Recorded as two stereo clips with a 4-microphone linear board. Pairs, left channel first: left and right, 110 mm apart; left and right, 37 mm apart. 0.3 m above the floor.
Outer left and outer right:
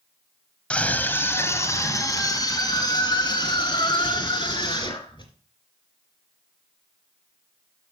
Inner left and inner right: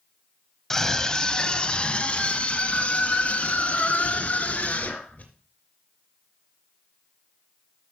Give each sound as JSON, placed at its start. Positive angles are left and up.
{"t": 0.7, "sound": "a scream", "side_deg": 10, "distance_m": 1.4}